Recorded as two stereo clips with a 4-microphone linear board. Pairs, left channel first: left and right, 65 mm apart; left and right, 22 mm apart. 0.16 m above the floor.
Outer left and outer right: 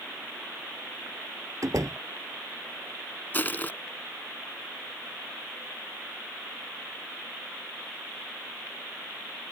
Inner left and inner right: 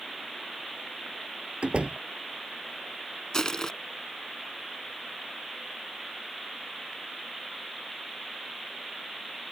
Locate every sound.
1.6 s a door slam: 55° right (ahead or behind)
3.3 s crushing: 30° left (ahead or behind)